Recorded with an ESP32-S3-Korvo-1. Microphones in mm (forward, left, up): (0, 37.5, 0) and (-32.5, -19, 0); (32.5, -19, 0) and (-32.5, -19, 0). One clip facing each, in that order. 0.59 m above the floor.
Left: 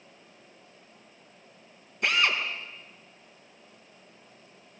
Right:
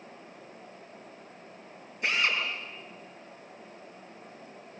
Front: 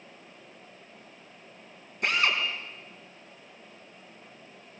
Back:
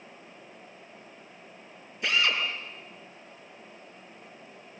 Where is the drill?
30° left, 5 m.